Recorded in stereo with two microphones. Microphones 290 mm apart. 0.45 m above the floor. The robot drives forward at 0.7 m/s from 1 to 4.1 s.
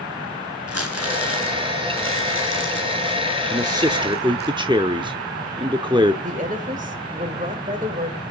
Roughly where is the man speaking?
Centre.